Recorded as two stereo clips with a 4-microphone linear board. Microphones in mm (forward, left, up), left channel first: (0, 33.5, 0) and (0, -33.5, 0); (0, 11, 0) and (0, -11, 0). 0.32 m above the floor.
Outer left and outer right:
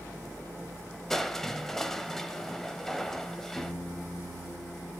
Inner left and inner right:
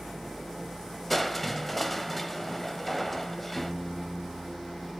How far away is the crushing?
About 0.9 m.